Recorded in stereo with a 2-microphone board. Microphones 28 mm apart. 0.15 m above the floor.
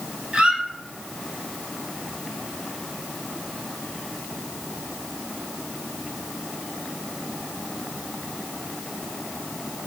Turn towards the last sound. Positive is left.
turn(degrees=-55)  # may be behind; listen again after turning